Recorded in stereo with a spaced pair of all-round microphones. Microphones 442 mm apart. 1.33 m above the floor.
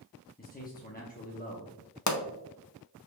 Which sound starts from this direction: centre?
A man speaking, at 0.4 s.